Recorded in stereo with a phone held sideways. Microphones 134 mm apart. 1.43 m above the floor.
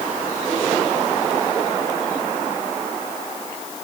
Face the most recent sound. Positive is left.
No sound to turn to.